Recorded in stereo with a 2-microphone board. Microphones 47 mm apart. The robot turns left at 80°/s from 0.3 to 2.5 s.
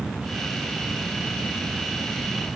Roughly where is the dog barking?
No dog barking in this recording.